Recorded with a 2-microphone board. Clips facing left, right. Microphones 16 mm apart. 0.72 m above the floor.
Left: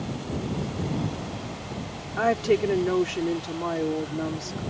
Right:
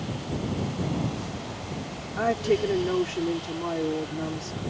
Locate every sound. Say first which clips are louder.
2.2 s a woman speaking: left 2 dB; 20° left (ahead or behind)